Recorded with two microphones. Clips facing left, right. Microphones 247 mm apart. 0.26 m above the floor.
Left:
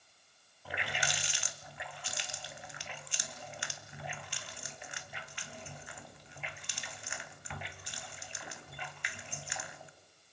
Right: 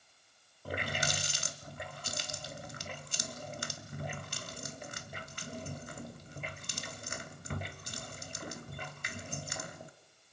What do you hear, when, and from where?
0.7 s a running tap: 50° right (ahead or behind), 1.1 m